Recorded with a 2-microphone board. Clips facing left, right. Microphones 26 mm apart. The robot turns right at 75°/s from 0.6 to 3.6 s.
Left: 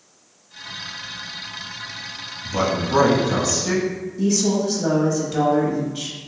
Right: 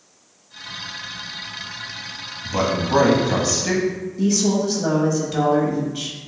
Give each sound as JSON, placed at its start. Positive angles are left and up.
{"t": 2.4, "sound": "a man speaking", "azimuth_deg": -140, "distance_m": 1.1}
{"t": 4.2, "sound": "a woman speaking", "side_deg": -5, "distance_m": 1.0}